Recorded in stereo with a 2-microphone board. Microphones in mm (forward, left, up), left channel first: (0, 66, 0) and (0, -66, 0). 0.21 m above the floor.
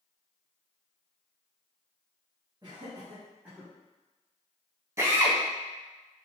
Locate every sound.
2.6 s laughter: 35° right (ahead or behind), 1.3 m; by 3.7 s 5° right (ahead or behind), 1.1 m
5.0 s a drill: 20° right (ahead or behind), 0.6 m